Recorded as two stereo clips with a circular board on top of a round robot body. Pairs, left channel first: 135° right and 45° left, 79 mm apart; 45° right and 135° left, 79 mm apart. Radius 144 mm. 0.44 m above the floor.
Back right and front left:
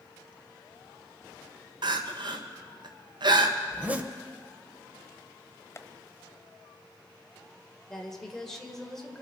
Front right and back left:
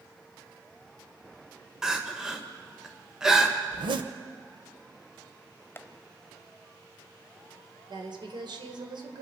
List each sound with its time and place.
1.8 s crying: 50° left, 1.4 m
3.7 s a zipper: 115° left, 0.7 m
5.8 s tapping: 100° right, 1.1 m
7.9 s a woman speaking: 140° left, 2.5 m